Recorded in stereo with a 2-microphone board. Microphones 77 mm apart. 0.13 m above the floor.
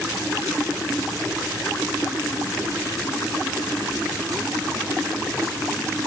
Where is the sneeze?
No sneeze in this recording.